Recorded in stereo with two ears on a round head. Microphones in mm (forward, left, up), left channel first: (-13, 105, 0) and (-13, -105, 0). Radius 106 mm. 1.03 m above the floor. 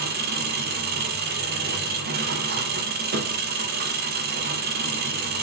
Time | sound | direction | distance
0.0 | an engine running | 45° right (ahead or behind) | 1.9 m